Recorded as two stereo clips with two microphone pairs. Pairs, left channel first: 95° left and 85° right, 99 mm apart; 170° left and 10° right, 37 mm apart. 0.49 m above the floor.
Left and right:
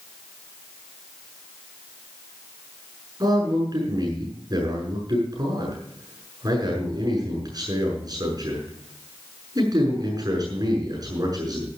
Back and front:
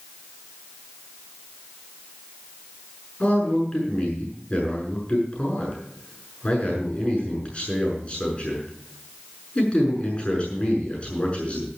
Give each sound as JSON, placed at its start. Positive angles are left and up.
{"t": 3.2, "sound": "a man speaking", "azimuth_deg": -130, "distance_m": 7.0}